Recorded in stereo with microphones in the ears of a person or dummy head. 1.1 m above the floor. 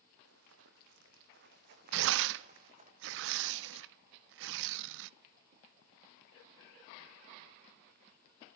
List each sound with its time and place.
0.2 s running footsteps: 80° right, 5 m; by 2.9 s 35° right (ahead or behind), 5.5 m
1.9 s tearing paper: 65° right (ahead or behind), 0.7 m